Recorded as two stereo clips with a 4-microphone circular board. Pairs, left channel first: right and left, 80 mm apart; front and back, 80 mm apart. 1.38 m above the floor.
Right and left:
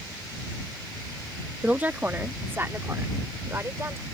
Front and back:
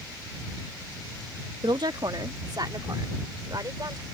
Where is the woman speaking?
160° left; by 4.0 s 145° left.